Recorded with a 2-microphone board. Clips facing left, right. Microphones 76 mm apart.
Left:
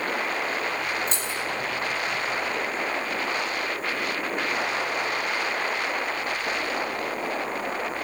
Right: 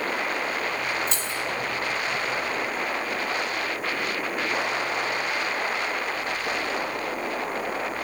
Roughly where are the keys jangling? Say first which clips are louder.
Even; left.